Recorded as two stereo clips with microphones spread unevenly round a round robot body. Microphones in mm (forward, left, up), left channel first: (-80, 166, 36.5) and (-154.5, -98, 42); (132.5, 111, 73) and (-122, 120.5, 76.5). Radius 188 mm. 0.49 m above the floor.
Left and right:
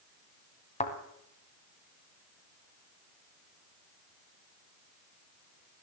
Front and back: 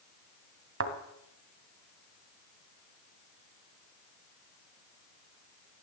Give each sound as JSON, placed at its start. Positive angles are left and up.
{"t": 0.8, "sound": "a thud", "azimuth_deg": 140, "distance_m": 2.0}